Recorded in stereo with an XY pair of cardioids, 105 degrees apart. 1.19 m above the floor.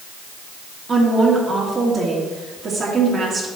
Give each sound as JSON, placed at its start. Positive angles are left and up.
{"t": 0.9, "sound": "a woman speaking", "azimuth_deg": -40, "distance_m": 2.5}